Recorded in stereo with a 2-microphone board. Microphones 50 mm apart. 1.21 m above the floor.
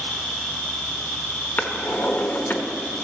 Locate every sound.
0.0 s an insect: 30° left (ahead or behind), 4 m
1.6 s a drawer: 40° left (ahead or behind), 1.2 m